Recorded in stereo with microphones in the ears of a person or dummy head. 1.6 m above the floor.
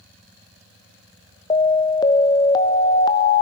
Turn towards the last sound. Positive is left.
turn(degrees=20)  # may be behind; listen again after turning